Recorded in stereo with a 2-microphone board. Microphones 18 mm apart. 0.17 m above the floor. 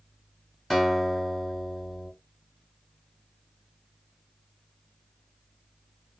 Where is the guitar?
5° left (ahead or behind), 1.7 m.